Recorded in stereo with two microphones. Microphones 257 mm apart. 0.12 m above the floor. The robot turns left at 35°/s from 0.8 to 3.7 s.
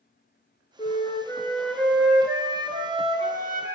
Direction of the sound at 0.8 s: 35° left.